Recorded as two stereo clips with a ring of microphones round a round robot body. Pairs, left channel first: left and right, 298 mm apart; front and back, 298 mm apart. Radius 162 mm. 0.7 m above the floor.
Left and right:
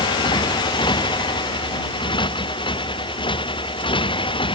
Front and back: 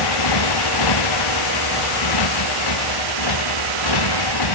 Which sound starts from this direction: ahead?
A motorcycle, at 0.0 s.